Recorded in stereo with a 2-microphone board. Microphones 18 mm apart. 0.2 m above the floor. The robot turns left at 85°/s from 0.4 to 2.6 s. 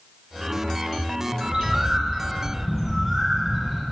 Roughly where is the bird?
Right.